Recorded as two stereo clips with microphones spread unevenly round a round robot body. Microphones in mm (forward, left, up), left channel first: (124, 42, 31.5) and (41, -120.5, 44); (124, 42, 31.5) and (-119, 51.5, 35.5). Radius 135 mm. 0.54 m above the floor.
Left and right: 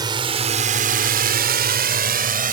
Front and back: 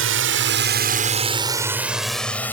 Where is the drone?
175° left; by 2.5 s 85° right.